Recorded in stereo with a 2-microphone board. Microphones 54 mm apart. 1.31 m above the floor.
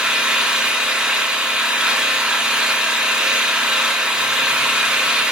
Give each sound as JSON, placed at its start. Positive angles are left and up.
{"t": 0.0, "sound": "an engine running", "side_deg": -15, "distance_m": 1.0}